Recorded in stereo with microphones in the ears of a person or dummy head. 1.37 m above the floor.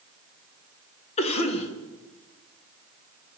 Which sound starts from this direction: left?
A cough, at 1.2 s.